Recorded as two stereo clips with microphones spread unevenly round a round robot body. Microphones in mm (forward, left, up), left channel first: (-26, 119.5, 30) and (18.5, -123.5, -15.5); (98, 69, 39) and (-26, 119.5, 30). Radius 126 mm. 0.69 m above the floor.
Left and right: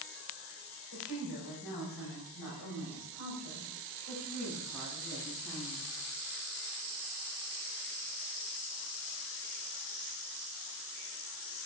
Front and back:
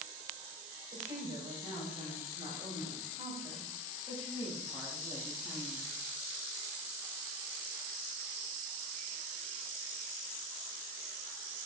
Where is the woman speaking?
115° left, 3.5 m; by 5.9 s 85° left, 6 m.